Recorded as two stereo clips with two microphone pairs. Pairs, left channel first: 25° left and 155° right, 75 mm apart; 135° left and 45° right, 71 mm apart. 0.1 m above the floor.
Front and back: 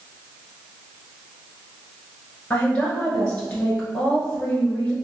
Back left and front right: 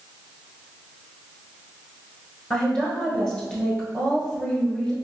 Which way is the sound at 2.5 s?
75° left.